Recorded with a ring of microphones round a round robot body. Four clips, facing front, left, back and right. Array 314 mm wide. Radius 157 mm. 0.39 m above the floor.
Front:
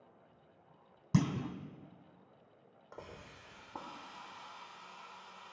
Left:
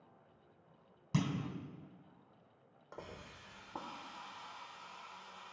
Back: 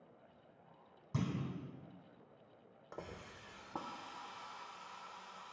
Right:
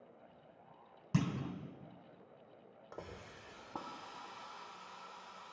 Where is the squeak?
I don't hear a squeak.